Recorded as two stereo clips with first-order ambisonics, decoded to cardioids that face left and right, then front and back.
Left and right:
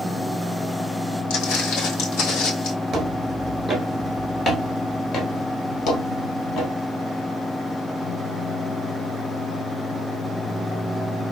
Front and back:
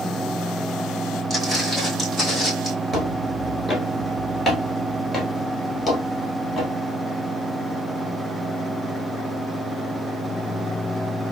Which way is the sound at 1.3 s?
90° left.